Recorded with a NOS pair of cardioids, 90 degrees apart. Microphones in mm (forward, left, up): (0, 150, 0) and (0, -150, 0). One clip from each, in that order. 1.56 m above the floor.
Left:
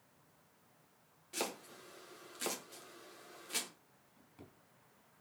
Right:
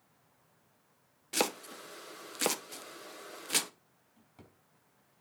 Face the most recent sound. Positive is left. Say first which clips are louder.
# even
turn(degrees=-35)